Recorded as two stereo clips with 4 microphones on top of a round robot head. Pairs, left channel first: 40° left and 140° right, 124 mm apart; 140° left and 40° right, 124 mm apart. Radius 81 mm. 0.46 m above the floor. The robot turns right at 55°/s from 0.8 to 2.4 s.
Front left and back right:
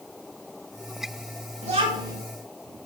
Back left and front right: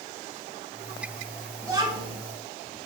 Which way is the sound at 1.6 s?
110° right.